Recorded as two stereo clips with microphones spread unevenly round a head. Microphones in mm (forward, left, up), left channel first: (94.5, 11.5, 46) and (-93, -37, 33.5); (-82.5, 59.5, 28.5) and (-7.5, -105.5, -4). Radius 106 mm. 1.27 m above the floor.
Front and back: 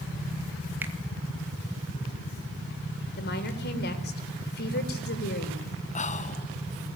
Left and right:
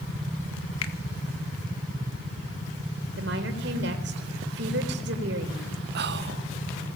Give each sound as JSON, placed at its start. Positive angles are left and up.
{"t": 0.8, "sound": "a finger snap", "azimuth_deg": 115, "distance_m": 1.9}
{"t": 3.2, "sound": "a woman speaking", "azimuth_deg": -25, "distance_m": 4.0}
{"t": 6.0, "sound": "whispering", "azimuth_deg": -40, "distance_m": 1.1}